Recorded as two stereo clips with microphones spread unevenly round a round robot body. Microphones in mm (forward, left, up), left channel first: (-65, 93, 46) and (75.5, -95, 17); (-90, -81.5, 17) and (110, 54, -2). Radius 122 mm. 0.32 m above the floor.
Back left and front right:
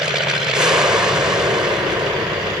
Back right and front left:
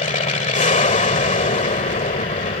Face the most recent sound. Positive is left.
turn(degrees=-125)